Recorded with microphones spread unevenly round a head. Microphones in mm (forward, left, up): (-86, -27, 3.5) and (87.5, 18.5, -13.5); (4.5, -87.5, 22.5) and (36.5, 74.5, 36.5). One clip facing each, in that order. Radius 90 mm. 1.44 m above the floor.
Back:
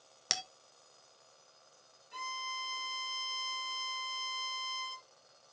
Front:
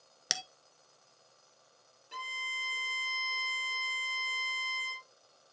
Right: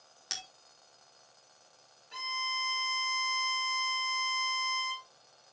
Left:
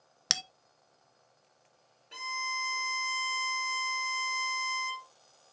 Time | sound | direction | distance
0.3 | a bell | 95° left | 0.5 m
2.1 | a violin | 30° left | 3.5 m